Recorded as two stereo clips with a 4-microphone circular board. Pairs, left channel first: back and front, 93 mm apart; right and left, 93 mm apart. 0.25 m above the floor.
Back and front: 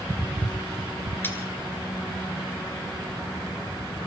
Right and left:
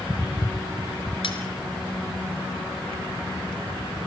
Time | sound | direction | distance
1.2 | cutlery clinking | 110° right | 2.5 m